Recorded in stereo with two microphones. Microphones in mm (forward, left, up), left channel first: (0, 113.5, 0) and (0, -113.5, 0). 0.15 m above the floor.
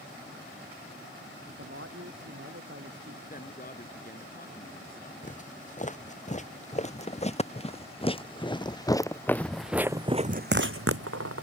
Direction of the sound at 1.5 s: 65° right (ahead or behind).